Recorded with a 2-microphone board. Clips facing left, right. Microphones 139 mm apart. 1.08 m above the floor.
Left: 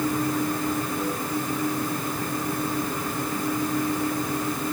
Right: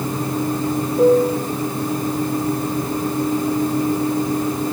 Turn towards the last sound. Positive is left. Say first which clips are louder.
# right 14 dB
turn(degrees=-65)  # may be behind; listen again after turning